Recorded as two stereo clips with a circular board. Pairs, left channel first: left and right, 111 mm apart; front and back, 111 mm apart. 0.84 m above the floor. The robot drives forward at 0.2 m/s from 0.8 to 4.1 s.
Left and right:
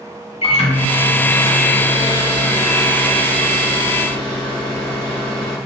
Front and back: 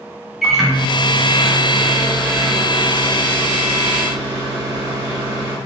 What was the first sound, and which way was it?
A microwave, 95° left.